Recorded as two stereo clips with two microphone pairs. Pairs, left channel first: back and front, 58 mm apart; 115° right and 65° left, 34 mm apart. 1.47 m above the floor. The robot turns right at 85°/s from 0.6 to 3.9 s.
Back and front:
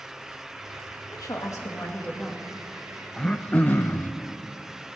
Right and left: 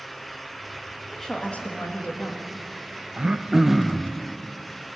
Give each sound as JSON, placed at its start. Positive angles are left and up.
{"t": 1.1, "sound": "a woman speaking", "azimuth_deg": 160, "distance_m": 1.9}
{"t": 3.2, "sound": "throat clearing", "azimuth_deg": 105, "distance_m": 0.6}